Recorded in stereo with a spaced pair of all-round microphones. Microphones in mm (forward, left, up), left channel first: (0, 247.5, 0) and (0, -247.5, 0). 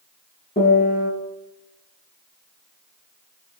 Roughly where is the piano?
Centre.